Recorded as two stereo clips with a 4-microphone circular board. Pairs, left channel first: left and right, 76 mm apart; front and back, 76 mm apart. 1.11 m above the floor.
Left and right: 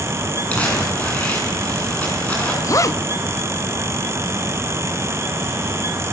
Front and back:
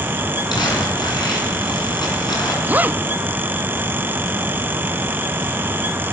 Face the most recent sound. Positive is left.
turn(degrees=120)